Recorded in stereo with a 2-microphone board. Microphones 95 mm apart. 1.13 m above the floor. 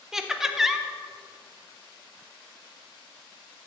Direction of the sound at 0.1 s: 5° right (ahead or behind).